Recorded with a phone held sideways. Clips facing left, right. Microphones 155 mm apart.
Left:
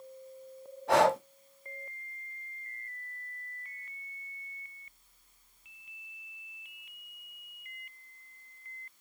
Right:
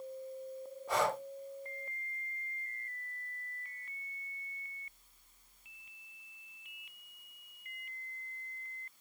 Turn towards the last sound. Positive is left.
turn(degrees=75)  # may be behind; listen again after turning